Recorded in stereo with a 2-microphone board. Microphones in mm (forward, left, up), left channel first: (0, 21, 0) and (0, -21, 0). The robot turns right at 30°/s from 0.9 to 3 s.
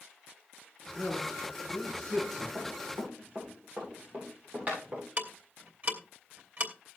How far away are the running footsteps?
About 8.5 m.